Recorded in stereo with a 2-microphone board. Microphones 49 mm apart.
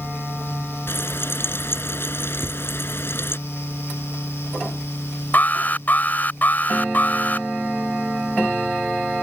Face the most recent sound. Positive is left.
turn(degrees=35)  # may be behind; listen again after turning